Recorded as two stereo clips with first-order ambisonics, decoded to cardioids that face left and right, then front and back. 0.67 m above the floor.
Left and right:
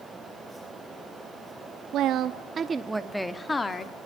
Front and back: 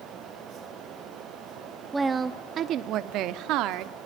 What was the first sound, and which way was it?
A woman speaking, 105° right.